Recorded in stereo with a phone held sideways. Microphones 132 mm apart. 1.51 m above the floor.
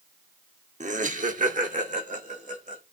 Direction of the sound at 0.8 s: 65° right (ahead or behind).